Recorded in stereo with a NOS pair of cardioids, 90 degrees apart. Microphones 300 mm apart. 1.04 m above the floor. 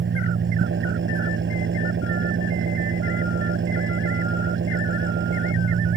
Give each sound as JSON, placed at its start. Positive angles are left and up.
{"t": 0.0, "sound": "an engine running", "azimuth_deg": -40}